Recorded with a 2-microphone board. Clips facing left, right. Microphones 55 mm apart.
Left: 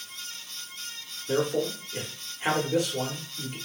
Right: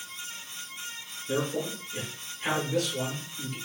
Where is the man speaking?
25° left (ahead or behind), 0.9 m.